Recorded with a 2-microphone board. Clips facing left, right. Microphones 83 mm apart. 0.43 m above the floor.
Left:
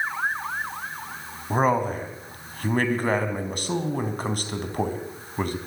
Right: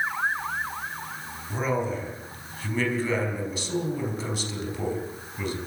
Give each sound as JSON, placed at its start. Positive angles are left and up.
{"t": 1.5, "sound": "a man speaking", "side_deg": 60, "distance_m": 4.5}